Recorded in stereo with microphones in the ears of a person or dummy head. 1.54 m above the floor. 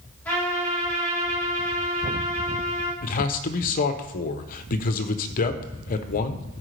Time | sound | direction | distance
0.2 | a trumpet | 10° left (ahead or behind) | 2.5 m
3.0 | a man speaking | 45° left (ahead or behind) | 0.8 m